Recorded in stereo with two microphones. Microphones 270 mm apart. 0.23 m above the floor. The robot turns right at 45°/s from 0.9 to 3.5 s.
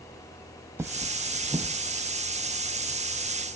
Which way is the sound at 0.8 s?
10° right (ahead or behind).